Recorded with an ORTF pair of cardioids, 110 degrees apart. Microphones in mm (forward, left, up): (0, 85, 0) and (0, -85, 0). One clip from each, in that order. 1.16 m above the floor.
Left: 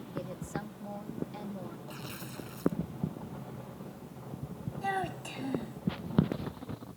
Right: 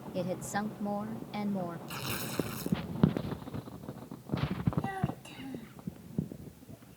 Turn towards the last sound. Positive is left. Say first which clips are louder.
# left 5 dB
turn(degrees=40)